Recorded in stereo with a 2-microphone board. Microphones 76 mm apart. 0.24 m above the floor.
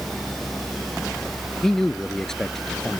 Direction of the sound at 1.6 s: 5° left (ahead or behind).